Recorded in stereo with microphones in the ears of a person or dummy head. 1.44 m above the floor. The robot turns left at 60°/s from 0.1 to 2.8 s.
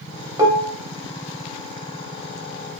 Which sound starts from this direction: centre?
Dishes clattering, at 0.4 s.